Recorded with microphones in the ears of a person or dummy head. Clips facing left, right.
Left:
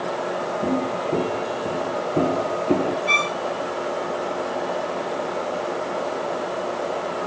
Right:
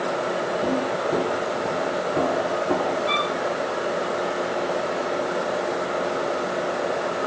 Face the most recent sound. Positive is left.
turn(degrees=40)  # may be behind; listen again after turning